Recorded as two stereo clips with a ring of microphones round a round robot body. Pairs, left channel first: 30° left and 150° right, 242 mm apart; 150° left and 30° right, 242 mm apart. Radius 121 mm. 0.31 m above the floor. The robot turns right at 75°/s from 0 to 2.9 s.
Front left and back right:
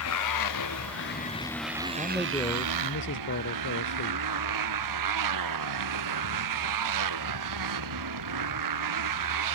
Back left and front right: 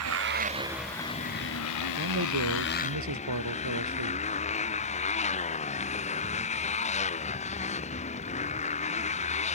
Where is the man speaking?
85° right; by 4.2 s 15° right.